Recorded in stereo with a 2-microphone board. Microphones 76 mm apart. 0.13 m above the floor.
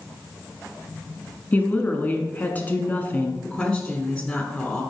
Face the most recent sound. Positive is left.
turn(degrees=10)  # may be behind; listen again after turning